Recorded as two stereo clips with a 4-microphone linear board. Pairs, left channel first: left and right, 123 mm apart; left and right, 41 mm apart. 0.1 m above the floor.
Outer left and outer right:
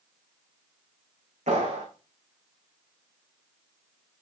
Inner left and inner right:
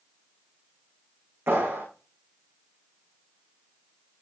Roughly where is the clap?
Right.